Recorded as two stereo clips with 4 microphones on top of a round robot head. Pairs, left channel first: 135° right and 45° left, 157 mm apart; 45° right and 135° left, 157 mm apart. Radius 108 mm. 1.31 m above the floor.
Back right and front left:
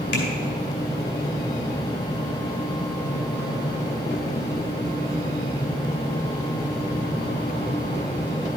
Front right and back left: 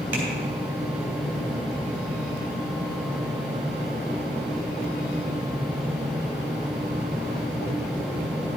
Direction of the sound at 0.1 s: 145° right.